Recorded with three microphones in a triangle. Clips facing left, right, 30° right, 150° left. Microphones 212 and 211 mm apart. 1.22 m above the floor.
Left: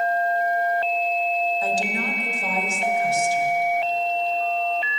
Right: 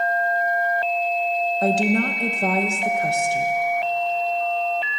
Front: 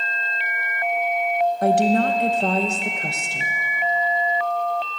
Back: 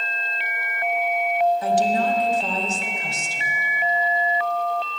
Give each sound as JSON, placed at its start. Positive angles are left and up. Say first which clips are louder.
{"t": 1.6, "sound": "a woman speaking", "louder": "right 6 dB, front 3 dB", "azimuth_deg": -60, "distance_m": 1.2}